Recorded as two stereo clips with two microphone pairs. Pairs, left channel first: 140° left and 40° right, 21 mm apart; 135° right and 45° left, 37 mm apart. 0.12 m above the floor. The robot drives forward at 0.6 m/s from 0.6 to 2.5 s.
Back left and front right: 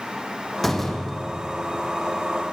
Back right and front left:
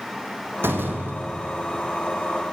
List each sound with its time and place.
0.6 s a door slam: 65° left, 5 m; by 1.9 s 75° left, 5 m